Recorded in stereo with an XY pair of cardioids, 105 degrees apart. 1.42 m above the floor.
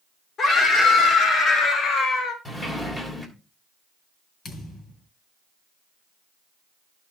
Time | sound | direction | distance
0.4 | a scream | 50° left | 4.5 m
2.5 | a sliding door | 20° left | 3 m
4.5 | a thud | 45° left | 4.5 m